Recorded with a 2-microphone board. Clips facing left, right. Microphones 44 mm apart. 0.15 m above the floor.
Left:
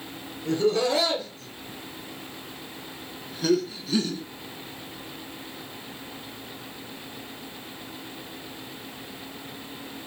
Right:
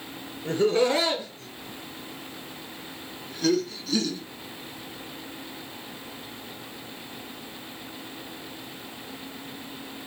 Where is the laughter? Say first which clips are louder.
Right 1 dB; 30° right (ahead or behind), 3 m; by 4.2 s 25° left (ahead or behind), 1.7 m.